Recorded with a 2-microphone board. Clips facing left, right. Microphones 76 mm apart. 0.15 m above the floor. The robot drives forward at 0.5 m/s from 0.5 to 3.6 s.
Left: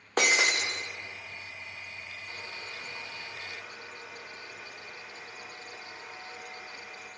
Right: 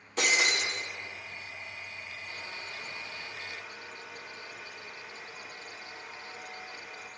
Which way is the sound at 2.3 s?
20° left (ahead or behind).